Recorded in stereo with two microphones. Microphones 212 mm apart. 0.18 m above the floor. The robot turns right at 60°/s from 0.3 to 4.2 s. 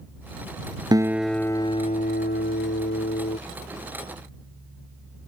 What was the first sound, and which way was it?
A guitar, 20° right.